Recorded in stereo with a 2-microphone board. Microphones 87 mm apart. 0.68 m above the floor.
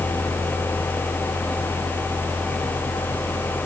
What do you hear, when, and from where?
Only background noise.